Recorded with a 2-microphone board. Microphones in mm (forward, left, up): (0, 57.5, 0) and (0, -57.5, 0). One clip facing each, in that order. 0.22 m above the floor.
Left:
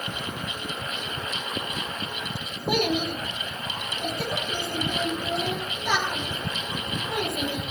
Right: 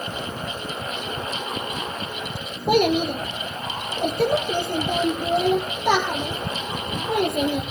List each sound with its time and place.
2.7 s a child speaking: 55° right (ahead or behind), 5 m